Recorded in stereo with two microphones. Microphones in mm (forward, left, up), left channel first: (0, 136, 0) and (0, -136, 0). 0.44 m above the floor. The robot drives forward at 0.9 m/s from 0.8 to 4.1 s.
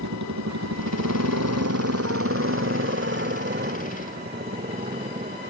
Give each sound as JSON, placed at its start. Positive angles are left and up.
{"t": 0.0, "sound": "a motorcycle", "side_deg": -85}